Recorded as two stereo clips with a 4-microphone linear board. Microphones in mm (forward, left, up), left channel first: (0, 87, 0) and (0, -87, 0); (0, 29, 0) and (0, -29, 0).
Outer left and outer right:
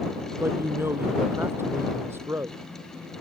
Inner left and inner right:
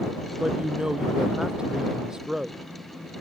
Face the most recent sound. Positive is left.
turn(degrees=-15)  # may be behind; listen again after turning